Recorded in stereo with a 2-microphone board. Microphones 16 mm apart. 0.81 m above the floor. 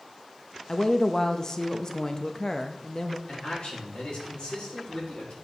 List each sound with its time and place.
0.7 s a woman speaking: 40° left (ahead or behind), 0.6 m
3.3 s a man speaking: 70° left (ahead or behind), 3.5 m